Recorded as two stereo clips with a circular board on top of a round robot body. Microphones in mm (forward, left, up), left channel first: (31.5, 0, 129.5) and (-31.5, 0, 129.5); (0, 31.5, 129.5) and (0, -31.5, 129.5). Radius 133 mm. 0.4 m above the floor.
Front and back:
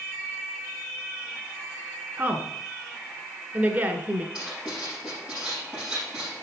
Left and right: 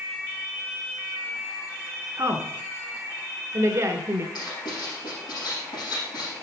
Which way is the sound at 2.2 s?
125° right.